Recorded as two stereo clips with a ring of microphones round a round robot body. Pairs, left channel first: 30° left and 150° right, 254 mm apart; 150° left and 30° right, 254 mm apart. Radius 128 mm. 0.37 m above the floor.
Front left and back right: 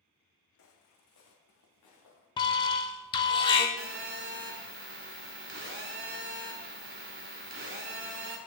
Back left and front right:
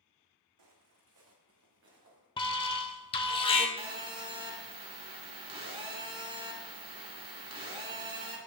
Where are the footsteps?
10° right, 1.5 m; by 2.3 s 20° left, 3 m.